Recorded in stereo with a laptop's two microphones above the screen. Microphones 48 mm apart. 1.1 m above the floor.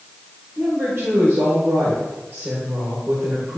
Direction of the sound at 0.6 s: 55° right (ahead or behind).